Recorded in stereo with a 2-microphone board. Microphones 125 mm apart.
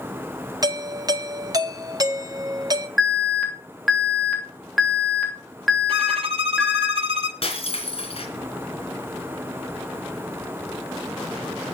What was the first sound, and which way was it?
A doorbell, 30° right (ahead or behind).